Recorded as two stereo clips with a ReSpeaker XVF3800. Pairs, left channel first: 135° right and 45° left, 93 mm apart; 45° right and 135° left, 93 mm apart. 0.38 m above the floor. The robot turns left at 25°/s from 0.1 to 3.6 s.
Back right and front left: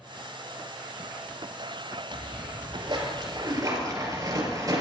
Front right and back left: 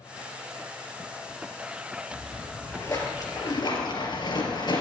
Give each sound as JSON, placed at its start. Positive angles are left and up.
{"t": 2.1, "sound": "a splash", "azimuth_deg": 30, "distance_m": 3.5}